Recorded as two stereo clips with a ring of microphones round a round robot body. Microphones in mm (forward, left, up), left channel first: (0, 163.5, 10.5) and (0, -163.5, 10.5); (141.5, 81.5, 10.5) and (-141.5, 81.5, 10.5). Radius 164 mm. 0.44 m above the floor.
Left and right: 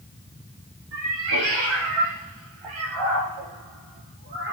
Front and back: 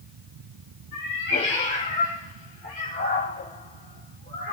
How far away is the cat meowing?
About 6.5 m.